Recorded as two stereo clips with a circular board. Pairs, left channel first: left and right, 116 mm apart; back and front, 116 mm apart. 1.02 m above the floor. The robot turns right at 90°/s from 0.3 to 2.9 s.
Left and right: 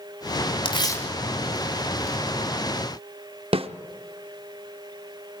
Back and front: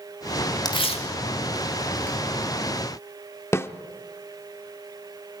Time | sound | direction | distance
0.7 | tearing paper | 125° left | 3 m
3.5 | a snare drum | 115° right | 0.9 m